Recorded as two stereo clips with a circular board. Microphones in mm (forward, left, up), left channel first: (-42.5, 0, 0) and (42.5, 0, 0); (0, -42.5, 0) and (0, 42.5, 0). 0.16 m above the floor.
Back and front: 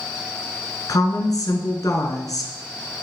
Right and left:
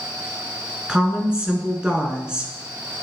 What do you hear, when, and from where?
0.9 s a woman speaking: 165° left, 1.6 m